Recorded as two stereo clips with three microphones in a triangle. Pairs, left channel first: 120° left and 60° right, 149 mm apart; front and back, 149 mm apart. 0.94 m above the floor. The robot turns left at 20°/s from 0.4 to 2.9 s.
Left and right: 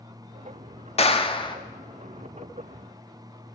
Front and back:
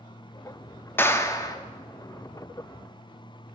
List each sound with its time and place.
1.0 s a clap: 75° left, 1.7 m; by 1.6 s 65° left, 1.7 m